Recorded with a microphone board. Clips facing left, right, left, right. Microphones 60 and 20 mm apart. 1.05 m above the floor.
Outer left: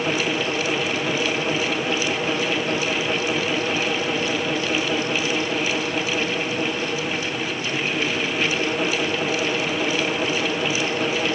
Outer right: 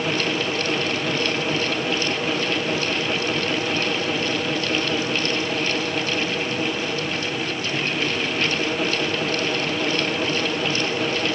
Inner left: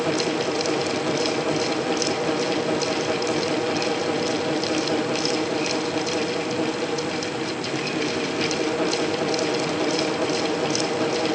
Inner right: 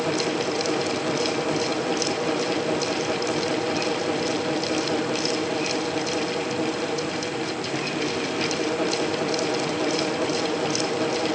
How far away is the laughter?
No laughter in this recording.